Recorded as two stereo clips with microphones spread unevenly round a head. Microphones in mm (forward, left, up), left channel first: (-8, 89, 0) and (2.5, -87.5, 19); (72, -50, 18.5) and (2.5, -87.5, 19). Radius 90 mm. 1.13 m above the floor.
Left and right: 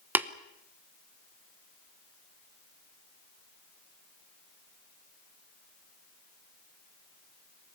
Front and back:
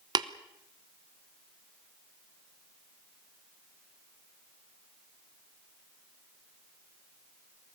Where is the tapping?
170° right, 0.8 m.